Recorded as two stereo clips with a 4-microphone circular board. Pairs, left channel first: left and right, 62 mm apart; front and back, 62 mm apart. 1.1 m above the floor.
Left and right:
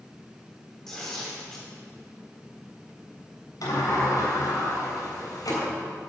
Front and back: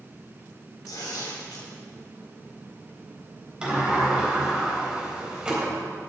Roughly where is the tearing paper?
Ahead.